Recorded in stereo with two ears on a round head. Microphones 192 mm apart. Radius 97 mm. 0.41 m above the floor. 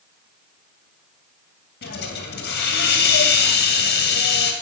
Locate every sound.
1.8 s a hiss: 50° left (ahead or behind), 2 m